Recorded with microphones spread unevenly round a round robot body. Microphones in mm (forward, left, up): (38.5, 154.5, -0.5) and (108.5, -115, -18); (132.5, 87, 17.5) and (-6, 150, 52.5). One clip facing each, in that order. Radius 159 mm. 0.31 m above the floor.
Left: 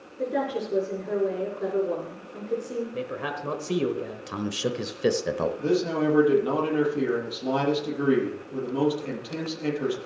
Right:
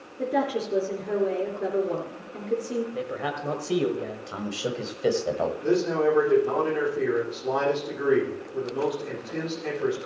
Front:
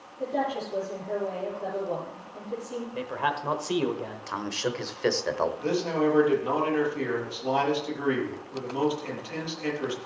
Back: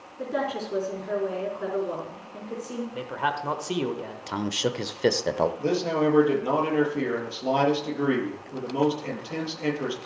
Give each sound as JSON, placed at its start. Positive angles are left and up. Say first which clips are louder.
{"t": 0.2, "sound": "a woman speaking", "louder": "right 1 dB, even", "azimuth_deg": -160, "distance_m": 4.0}
{"t": 2.9, "sound": "a man speaking", "louder": "right 1 dB, front 1 dB", "azimuth_deg": 35, "distance_m": 1.3}
{"t": 4.3, "sound": "a man speaking", "louder": "left 4 dB, back 4 dB", "azimuth_deg": 100, "distance_m": 1.0}
{"t": 5.6, "sound": "a man speaking", "louder": "right 2 dB, back 2 dB", "azimuth_deg": 100, "distance_m": 7.5}